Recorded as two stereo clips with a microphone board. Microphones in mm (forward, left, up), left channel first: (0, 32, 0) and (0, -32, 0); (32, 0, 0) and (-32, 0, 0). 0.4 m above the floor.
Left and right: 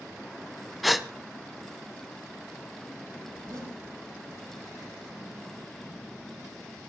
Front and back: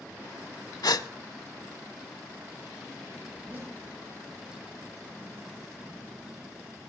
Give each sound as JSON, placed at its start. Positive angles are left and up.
{"t": 0.8, "sound": "a gasp", "azimuth_deg": 0, "distance_m": 0.6}
{"t": 3.3, "sound": "a zipper", "azimuth_deg": -125, "distance_m": 7.0}